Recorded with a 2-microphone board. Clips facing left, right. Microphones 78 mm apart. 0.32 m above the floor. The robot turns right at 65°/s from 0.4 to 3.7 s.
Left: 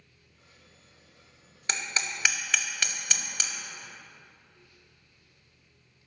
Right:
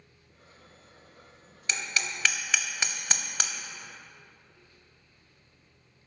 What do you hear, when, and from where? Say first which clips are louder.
1.7 s hammering: even; 40° left (ahead or behind), 0.6 m; by 3.5 s 60° right (ahead or behind), 0.6 m